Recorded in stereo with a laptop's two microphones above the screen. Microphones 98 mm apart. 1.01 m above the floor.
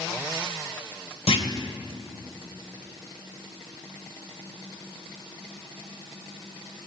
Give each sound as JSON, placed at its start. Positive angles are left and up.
{"t": 1.3, "sound": "a clunk", "side_deg": 80, "distance_m": 2.0}